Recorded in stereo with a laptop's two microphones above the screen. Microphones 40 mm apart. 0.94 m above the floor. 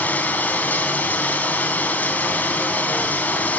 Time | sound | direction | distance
0.0 | running water | 45° left (ahead or behind) | 3 m